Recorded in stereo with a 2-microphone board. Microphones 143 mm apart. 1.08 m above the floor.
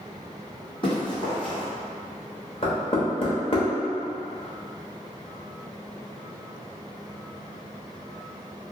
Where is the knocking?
40° left (ahead or behind), 0.8 m.